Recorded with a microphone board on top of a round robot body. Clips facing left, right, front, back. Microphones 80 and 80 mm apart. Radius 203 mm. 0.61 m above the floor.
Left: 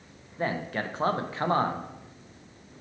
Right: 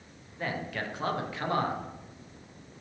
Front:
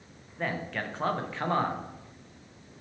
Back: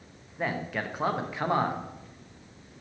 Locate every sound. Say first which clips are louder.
0.4 s a man speaking: left 4 dB, back 2 dB; 105° left, 1.1 m